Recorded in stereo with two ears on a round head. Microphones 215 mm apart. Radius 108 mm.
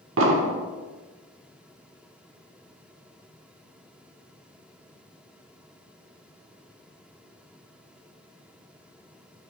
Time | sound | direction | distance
0.2 | an explosion | 55° right (ahead or behind) | 1.2 m